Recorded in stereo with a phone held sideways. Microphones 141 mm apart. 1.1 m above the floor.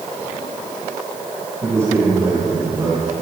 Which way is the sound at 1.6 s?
20° right (ahead or behind).